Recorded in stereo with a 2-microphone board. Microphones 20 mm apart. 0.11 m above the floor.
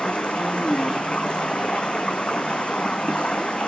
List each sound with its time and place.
0.0 s running water: 75° left (ahead or behind), 1.0 m